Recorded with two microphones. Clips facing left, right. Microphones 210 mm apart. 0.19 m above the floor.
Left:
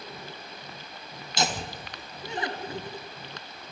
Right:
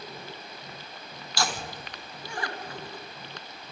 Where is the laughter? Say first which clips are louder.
Left 2 dB; 20° left (ahead or behind), 2 m.